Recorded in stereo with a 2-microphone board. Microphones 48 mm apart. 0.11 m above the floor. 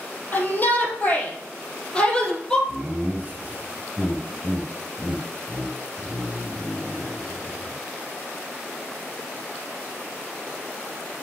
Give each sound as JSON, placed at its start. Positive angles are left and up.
{"t": 0.3, "sound": "a shout", "side_deg": 40, "distance_m": 3.0}
{"t": 2.7, "sound": "laughter", "side_deg": -25, "distance_m": 1.5}